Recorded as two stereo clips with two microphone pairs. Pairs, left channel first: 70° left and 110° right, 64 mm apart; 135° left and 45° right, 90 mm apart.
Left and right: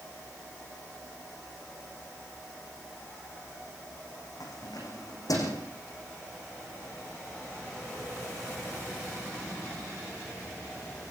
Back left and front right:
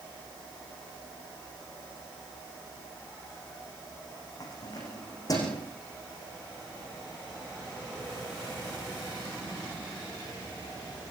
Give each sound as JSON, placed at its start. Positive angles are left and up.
{"t": 4.4, "sound": "keys jangling", "azimuth_deg": 90, "distance_m": 8.5}